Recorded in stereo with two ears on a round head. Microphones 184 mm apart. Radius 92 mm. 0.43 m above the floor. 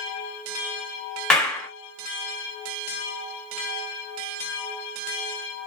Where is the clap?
5° left (ahead or behind), 1.3 m.